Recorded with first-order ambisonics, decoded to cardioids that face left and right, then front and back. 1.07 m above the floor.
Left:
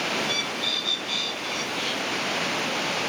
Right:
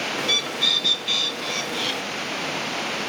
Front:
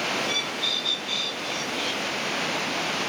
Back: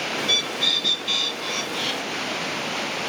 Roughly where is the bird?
Behind right.